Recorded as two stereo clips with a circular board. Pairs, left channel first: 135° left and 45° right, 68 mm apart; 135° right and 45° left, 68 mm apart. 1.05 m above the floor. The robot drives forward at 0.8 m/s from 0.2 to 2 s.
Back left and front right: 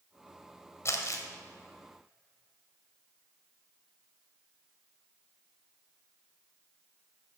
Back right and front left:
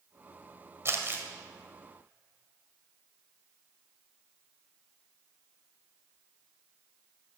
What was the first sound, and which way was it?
Crumpling, 90° left.